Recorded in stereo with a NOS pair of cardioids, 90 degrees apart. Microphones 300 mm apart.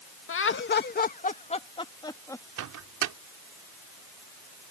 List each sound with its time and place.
0.3 s laughter: 45° left; by 2.4 s 10° left
2.6 s a microwave: 70° right